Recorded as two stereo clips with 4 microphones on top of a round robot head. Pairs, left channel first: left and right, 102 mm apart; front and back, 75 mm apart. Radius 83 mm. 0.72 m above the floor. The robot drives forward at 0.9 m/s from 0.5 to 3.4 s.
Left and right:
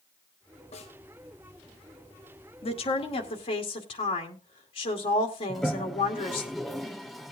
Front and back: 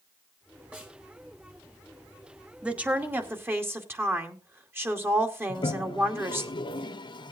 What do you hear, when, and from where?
0.7 s a snare drum: 110° left, 5 m
2.6 s a woman speaking: 105° left, 2.0 m; by 6.5 s 125° left, 2.5 m
5.5 s a toilet flushing: straight ahead, 0.9 m